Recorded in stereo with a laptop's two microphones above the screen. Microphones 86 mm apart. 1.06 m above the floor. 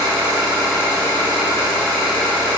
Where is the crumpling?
I don't hear crumpling.